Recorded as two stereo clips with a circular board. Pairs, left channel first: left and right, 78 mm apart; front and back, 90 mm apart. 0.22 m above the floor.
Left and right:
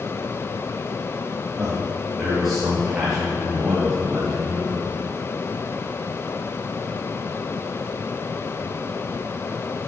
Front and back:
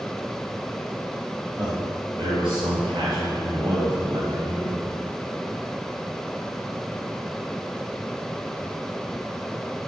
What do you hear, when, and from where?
1.6 s a man speaking: 170° right, 4.5 m; by 4.8 s straight behind, 6.5 m